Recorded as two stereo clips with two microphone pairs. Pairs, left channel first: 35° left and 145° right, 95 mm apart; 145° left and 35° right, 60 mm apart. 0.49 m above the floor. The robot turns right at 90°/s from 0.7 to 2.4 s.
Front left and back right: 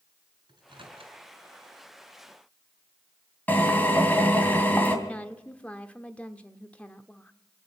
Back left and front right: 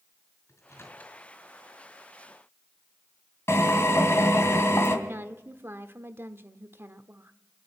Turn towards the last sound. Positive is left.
turn(degrees=-35)